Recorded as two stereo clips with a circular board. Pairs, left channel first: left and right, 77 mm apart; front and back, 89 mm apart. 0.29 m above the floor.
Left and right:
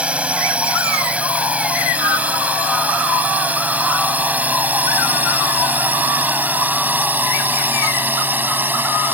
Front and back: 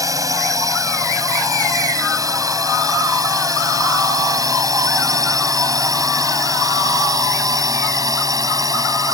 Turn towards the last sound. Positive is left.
turn(degrees=-145)